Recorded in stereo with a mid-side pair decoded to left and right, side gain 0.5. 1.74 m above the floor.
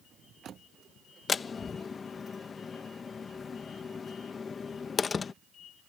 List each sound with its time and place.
1.3 s a door slam: 35° left